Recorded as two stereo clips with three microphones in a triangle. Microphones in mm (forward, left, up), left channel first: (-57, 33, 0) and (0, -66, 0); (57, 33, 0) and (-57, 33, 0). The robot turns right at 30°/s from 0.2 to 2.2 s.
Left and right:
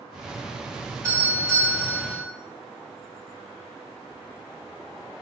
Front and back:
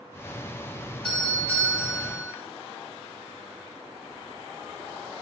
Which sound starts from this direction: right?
A doorbell, at 1.0 s.